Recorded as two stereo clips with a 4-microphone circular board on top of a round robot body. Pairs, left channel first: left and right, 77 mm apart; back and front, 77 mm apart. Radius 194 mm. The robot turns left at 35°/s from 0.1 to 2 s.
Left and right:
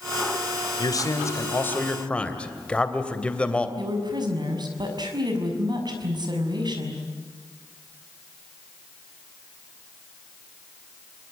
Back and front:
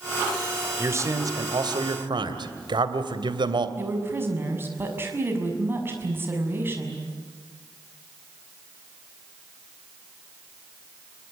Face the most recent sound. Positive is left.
turn(degrees=-60)